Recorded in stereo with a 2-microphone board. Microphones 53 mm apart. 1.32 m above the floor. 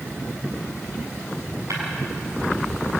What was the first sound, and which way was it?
Breaking glass, 85° right.